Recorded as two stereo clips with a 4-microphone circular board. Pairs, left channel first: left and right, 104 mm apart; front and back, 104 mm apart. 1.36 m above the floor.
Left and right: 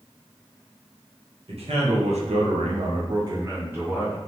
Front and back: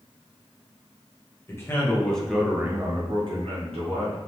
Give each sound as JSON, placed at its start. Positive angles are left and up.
{"t": 1.5, "sound": "a man speaking", "azimuth_deg": -65, "distance_m": 0.9}